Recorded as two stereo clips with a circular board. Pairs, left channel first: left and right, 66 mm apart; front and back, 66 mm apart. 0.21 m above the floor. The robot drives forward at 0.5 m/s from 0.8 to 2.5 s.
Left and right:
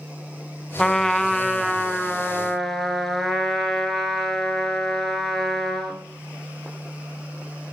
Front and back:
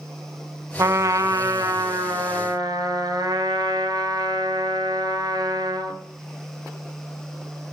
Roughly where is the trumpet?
Behind.